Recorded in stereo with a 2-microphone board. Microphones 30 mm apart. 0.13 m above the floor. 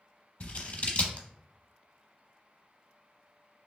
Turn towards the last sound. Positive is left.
turn(degrees=50)  # may be behind; listen again after turning